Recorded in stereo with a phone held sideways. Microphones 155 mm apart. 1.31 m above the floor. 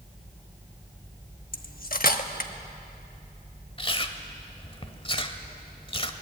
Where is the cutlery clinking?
65° left (ahead or behind), 1.1 m.